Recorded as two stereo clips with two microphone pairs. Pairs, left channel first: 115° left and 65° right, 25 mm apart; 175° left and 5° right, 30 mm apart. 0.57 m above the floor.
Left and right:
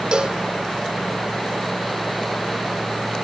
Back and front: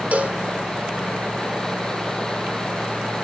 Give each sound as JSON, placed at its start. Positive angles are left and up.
{"t": 0.1, "sound": "a cowbell", "azimuth_deg": -25, "distance_m": 1.4}